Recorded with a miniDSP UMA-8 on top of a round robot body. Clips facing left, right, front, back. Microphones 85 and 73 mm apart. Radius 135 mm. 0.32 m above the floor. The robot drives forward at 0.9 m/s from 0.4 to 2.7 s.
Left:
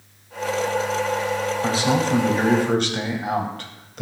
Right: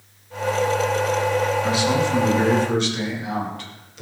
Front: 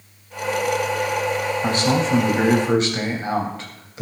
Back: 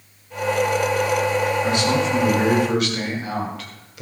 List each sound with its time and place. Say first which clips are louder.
1.6 s a man speaking: even, even; 40° left, 3.5 m; by 4.0 s 55° left, 3 m